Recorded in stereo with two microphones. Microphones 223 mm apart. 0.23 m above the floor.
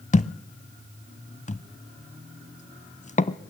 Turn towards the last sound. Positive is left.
turn(degrees=30)  # may be behind; listen again after turning